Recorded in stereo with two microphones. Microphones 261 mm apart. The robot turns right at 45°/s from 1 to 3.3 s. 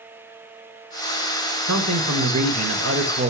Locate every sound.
1.7 s a man speaking: 110° right, 1.2 m; by 3.3 s 35° right, 1.2 m